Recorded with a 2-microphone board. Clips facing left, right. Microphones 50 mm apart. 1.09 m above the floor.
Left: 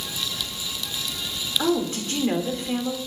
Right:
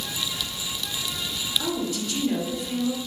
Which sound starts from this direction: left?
A woman speaking, at 1.6 s.